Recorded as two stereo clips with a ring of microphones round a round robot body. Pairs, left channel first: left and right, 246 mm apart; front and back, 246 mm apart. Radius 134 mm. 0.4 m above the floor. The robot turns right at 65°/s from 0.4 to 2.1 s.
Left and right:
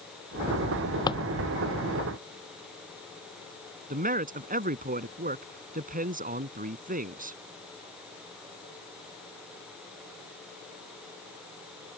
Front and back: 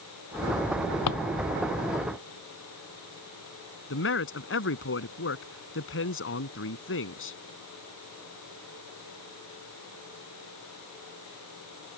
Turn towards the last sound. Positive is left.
turn(degrees=-35)